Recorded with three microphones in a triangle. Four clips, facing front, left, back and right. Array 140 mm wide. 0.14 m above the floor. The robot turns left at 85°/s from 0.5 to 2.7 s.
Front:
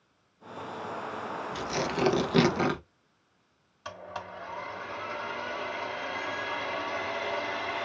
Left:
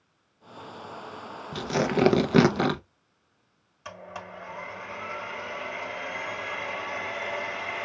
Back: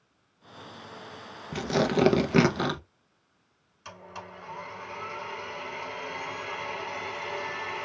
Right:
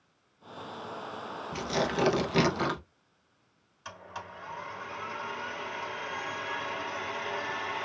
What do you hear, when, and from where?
1.5 s tearing paper: 170° left, 0.7 m; by 2.8 s 70° left, 0.7 m
3.9 s a blender: 45° left, 1.4 m